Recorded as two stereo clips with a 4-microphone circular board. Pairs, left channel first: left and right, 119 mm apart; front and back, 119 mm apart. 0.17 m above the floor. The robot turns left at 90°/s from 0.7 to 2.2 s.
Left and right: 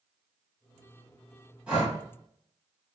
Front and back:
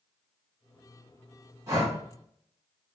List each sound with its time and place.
1.7 s breathing: 155° right, 1.7 m; by 1.9 s 175° left, 1.7 m